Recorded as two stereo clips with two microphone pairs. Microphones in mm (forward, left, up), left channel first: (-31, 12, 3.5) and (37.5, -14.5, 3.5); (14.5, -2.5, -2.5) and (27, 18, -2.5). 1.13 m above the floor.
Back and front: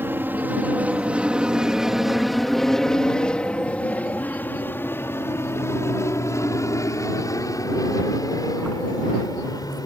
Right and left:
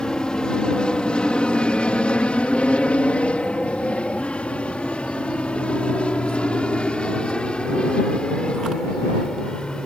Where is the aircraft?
75° right; by 9.9 s 175° right.